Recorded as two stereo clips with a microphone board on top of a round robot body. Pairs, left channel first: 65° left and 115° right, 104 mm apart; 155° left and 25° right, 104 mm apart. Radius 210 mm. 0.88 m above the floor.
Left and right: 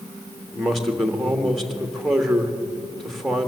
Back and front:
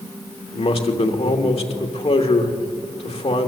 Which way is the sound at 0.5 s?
155° left.